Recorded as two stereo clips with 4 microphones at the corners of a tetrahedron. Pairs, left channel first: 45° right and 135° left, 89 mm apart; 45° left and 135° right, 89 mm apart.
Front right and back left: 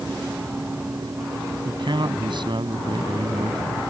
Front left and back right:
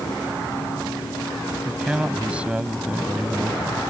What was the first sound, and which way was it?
A man speaking, 150° left.